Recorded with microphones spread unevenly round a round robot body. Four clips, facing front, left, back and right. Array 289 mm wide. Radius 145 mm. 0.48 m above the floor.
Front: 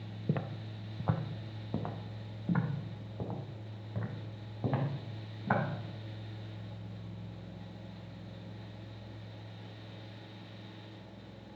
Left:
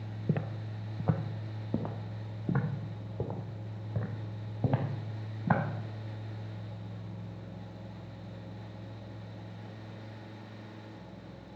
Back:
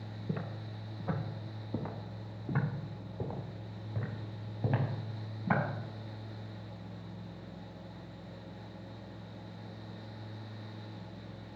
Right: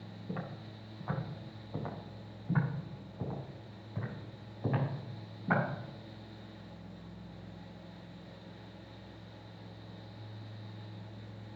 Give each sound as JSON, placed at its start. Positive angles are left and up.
{"t": 0.3, "sound": "footsteps", "azimuth_deg": 60, "distance_m": 0.8}